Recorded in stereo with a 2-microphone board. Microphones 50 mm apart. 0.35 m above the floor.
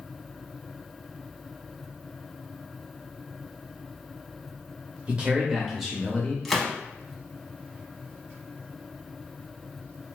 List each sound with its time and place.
5.1 s a man speaking: 25° right (ahead or behind), 0.9 m; by 6.3 s 20° left (ahead or behind), 0.9 m
6.5 s a gunshot: 5° left (ahead or behind), 0.5 m